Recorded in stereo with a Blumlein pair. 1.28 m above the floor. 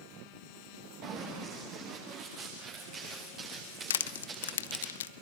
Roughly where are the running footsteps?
Ahead right.